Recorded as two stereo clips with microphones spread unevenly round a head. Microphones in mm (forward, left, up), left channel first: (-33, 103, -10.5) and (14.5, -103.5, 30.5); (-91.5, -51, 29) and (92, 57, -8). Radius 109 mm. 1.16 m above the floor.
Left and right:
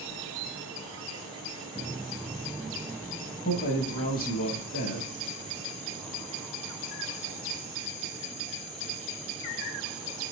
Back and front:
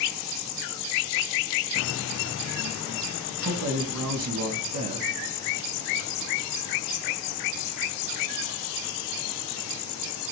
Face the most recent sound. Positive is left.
turn(degrees=50)